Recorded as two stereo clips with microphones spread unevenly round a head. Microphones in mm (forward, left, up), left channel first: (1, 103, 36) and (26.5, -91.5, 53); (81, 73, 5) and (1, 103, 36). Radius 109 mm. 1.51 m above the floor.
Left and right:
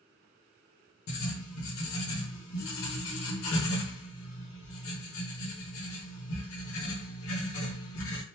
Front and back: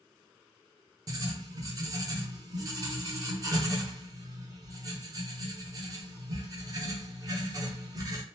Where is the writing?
125° left, 1.1 m.